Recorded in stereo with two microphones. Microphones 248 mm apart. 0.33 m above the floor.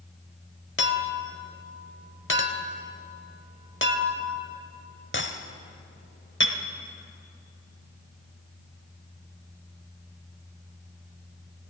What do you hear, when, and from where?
0.8 s a clink: 45° left (ahead or behind), 0.7 m